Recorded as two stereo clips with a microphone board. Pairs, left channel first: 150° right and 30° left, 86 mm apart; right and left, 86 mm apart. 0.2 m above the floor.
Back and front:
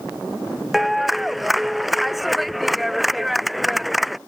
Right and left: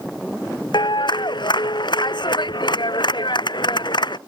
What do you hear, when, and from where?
0.7 s a clap: 60° right